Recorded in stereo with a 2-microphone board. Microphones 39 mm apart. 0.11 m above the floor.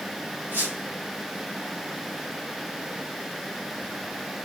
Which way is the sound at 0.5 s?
65° right (ahead or behind).